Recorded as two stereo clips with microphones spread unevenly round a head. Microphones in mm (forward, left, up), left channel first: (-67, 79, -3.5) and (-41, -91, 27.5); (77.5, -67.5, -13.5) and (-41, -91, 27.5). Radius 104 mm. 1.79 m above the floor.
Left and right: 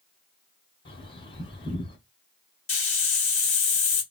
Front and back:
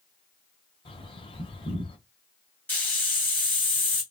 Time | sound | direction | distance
0.8 | a bird | 50° left | 1.6 m
2.7 | a hiss | 115° left | 1.7 m